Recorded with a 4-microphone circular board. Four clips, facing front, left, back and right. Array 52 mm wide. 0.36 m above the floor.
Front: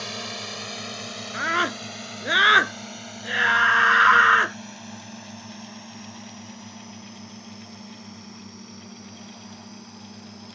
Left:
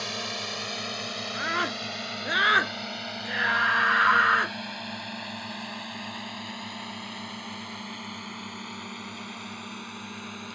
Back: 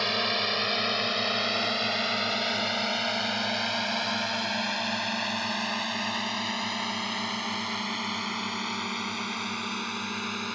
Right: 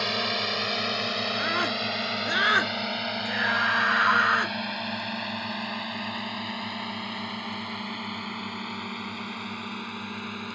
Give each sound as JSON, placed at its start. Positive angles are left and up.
{"t": 0.0, "sound": "a drone", "azimuth_deg": -140}
{"t": 1.3, "sound": "a scream", "azimuth_deg": 5}